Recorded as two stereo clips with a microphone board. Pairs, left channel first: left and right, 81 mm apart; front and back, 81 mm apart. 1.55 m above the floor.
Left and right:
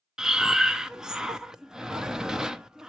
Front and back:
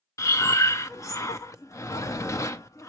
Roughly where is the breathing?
Ahead.